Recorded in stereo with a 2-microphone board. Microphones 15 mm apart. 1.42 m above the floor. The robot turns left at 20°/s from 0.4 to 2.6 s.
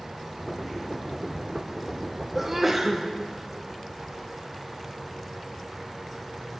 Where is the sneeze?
15° right (ahead or behind), 1.1 m; by 3.0 s 10° right (ahead or behind), 1.1 m.